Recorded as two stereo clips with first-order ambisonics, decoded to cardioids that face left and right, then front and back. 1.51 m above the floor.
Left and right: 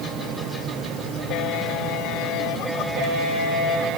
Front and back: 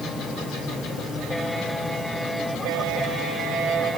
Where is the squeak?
I don't hear a squeak.